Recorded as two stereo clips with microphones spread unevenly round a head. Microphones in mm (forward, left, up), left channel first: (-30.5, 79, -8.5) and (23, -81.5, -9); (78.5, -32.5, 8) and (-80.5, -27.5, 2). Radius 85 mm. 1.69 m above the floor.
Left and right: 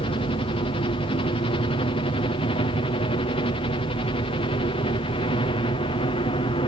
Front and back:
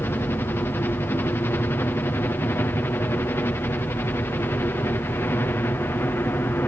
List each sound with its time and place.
0.0 s a helicopter: 70° left